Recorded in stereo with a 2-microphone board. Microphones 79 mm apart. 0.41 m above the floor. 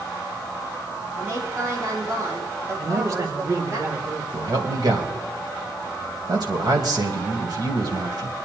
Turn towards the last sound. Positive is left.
turn(degrees=-60)  # may be behind; listen again after turning